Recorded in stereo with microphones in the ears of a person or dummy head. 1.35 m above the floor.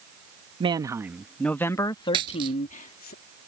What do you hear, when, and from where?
0.6 s a man speaking: 30° right (ahead or behind); by 3.1 s 45° left (ahead or behind)
2.1 s a dropped coin: 30° right (ahead or behind)